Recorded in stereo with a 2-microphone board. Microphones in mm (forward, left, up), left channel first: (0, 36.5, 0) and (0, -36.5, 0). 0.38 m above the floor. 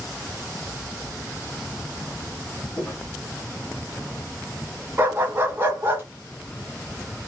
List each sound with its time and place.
2.8 s footsteps: 5° left (ahead or behind), 2 m
5.0 s a dog barking: 30° right (ahead or behind), 1.0 m